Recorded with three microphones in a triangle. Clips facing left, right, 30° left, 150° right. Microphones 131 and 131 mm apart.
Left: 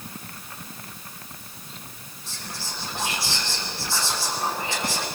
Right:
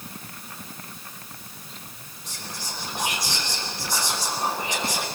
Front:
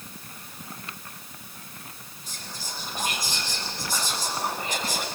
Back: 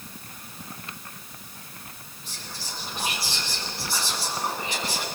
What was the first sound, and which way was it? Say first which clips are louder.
Whispering: even, even; 15° right.